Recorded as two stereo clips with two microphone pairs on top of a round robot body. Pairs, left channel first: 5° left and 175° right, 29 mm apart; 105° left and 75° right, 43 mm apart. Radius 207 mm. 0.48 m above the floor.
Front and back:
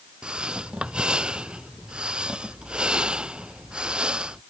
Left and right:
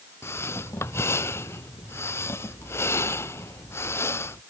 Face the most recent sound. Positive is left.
turn(degrees=125)